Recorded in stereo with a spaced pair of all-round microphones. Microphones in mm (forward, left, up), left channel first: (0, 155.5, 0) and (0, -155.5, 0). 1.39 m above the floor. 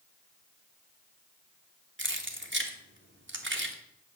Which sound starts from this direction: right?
Keys jangling, at 2.0 s.